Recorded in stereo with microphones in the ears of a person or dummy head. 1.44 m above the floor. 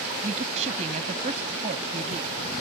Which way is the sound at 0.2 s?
45° right (ahead or behind).